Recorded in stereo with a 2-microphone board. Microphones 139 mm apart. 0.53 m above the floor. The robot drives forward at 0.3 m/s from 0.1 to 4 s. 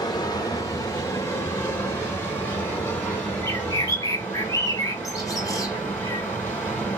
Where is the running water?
30° left (ahead or behind), 0.7 m; by 7.0 s 10° left (ahead or behind), 1.8 m.